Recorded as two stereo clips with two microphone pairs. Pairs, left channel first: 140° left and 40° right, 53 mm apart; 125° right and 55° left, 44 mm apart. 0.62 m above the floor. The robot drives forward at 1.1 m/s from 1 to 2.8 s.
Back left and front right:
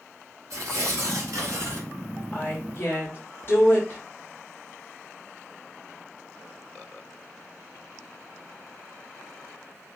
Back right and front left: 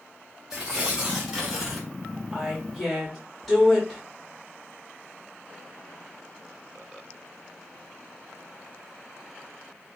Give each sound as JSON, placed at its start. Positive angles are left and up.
{"t": 0.5, "sound": "tearing paper", "azimuth_deg": -20, "distance_m": 2.5}
{"t": 2.3, "sound": "a woman speaking", "azimuth_deg": 125, "distance_m": 1.1}